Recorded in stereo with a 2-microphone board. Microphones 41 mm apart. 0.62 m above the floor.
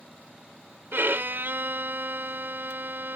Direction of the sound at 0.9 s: 65° right (ahead or behind).